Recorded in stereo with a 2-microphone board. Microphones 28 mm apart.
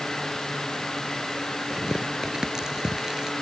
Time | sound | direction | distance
1.7 | tearing paper | 20° right (ahead or behind) | ?